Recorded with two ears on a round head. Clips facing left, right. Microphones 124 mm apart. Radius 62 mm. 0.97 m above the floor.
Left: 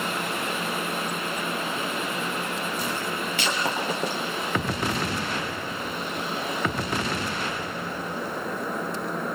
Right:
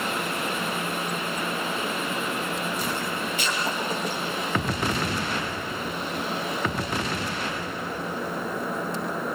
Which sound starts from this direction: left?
Breaking glass, at 3.4 s.